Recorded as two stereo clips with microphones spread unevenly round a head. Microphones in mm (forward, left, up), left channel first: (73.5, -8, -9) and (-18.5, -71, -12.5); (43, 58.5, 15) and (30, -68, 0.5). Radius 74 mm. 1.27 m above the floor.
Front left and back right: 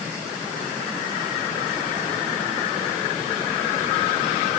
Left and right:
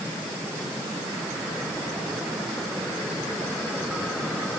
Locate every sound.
Only background noise.